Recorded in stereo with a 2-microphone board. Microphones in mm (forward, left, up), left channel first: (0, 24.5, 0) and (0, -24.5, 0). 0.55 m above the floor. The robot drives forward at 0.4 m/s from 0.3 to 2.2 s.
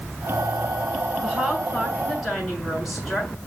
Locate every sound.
1.2 s a woman speaking: centre (ahead or behind), 7 m